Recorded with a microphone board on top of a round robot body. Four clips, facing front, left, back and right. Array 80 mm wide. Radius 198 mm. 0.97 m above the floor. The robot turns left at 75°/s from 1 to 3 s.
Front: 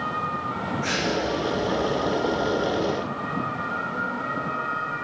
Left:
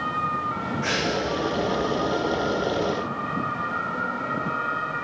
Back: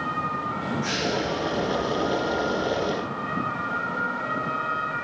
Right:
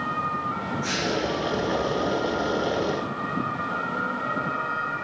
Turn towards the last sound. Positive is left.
turn(degrees=-65)